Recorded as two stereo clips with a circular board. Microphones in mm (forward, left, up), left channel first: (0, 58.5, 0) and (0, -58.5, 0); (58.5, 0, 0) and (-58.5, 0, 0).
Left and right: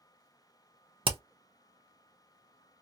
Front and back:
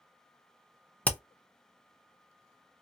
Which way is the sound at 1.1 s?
75° right.